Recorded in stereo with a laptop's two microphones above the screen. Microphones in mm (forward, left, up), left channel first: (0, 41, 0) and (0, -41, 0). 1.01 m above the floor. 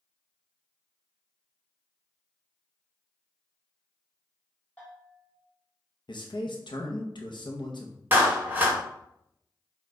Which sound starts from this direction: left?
A man speaking, at 6.1 s.